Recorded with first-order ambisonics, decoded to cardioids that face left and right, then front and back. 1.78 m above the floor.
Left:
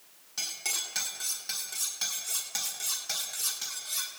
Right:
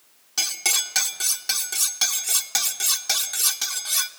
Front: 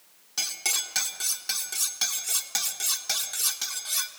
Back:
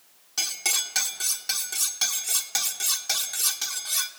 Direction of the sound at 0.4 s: 90° right.